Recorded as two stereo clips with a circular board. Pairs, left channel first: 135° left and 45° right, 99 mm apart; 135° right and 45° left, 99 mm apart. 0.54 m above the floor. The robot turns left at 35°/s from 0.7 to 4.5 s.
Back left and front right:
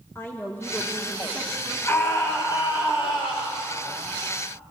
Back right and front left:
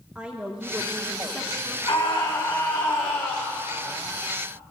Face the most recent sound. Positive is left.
turn(degrees=100)